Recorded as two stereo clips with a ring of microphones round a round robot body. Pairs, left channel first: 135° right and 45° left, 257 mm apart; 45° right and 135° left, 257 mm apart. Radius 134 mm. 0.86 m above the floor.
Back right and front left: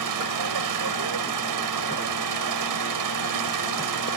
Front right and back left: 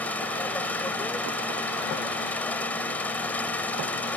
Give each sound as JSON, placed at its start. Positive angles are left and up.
{"t": 0.0, "sound": "an engine running", "azimuth_deg": 40}